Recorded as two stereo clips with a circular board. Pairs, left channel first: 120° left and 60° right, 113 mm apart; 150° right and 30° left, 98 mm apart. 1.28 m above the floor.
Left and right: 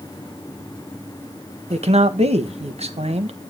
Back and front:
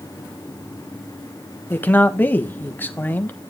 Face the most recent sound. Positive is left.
turn(degrees=-80)